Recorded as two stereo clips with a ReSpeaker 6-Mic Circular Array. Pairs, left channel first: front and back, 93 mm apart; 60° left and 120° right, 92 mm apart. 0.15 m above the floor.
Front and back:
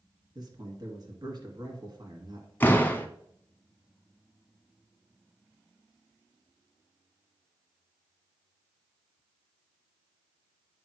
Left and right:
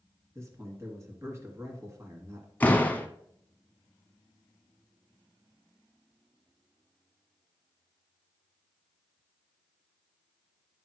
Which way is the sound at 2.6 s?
25° left.